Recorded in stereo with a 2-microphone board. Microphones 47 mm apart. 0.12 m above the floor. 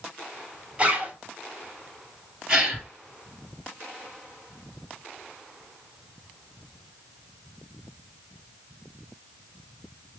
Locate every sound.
0.8 s a zipper: 25° right (ahead or behind), 2.5 m
2.5 s a gasp: 15° right (ahead or behind), 2.5 m